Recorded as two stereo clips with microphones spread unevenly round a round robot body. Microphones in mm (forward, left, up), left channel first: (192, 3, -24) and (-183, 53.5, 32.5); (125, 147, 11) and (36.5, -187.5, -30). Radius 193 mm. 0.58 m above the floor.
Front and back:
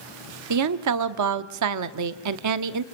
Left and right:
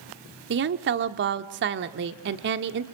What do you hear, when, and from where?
0.5 s a woman speaking: 145° right, 1.2 m